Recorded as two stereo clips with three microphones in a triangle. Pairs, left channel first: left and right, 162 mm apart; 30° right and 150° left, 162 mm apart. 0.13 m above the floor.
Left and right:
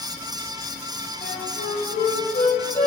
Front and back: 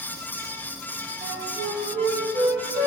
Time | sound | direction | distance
1.2 | a flute | 120° left | 0.6 m